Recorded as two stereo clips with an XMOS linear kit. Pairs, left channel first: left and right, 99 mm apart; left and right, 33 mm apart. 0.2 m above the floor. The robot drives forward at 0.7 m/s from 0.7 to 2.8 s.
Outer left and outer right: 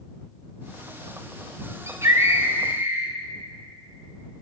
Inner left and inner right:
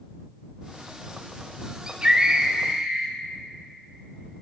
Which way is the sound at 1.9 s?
30° right (ahead or behind).